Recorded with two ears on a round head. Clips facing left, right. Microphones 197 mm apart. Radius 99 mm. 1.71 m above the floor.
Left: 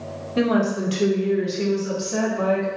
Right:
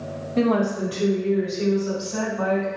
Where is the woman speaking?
10° left (ahead or behind), 0.8 m; by 2.7 s 75° left (ahead or behind), 2.0 m.